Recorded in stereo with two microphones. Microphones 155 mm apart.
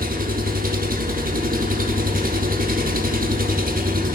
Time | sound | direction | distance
0.0 | an engine running | 65° right (ahead or behind) | 0.8 m